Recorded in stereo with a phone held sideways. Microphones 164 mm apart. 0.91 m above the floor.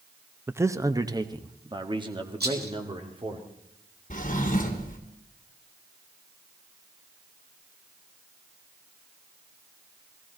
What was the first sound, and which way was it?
A man speaking, 15° right (ahead or behind).